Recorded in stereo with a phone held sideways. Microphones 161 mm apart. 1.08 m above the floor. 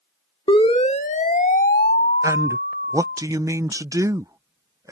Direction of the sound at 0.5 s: 30° left (ahead or behind).